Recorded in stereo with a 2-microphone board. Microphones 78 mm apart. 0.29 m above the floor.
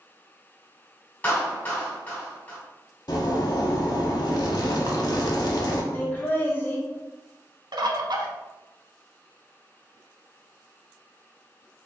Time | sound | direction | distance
1.2 | a clap | 25° left (ahead or behind) | 1.6 m
3.1 | a zipper | 60° left (ahead or behind) | 0.7 m
5.9 | laughter | 25° left (ahead or behind) | 0.9 m
7.7 | a bird | 65° right (ahead or behind) | 0.5 m